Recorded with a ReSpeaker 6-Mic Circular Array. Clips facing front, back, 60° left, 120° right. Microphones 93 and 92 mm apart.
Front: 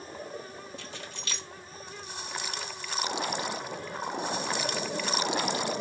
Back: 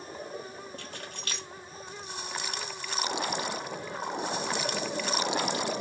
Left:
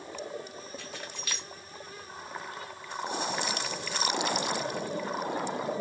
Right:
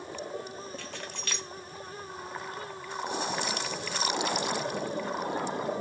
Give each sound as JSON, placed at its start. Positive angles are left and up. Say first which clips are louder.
{"t": 0.8, "sound": "keys jangling", "louder": "even, right 2 dB", "azimuth_deg": 140, "distance_m": 1.0}